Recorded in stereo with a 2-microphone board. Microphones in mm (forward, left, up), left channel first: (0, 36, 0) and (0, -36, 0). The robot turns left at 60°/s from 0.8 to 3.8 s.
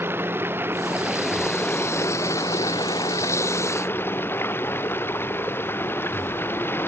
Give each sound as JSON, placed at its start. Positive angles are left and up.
{"t": 0.0, "sound": "running water", "azimuth_deg": -145}